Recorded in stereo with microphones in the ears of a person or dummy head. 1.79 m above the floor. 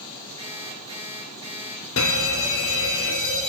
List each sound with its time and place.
0.4 s an alarm clock: 40° right (ahead or behind), 5.5 m
2.0 s a fire alarm: 60° left (ahead or behind), 2 m